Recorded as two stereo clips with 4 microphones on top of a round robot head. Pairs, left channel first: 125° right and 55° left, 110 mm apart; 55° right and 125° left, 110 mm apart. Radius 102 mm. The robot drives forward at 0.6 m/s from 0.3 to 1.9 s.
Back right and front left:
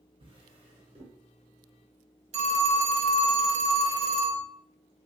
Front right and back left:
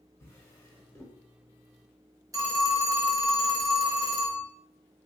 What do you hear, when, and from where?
0.2 s a drawer: 15° left, 1.5 m; by 1.2 s 20° left, 1.1 m
2.3 s a phone ringing: 65° left, 0.9 m